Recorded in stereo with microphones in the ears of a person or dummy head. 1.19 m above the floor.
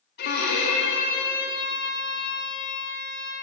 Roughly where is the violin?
Left.